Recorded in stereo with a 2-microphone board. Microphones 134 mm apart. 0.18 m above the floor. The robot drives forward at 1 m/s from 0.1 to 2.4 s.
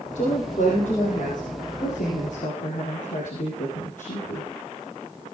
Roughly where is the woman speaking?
Left.